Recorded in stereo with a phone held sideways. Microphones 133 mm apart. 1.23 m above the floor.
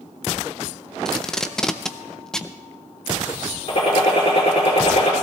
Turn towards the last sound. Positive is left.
turn(degrees=40)  # may be behind; listen again after turning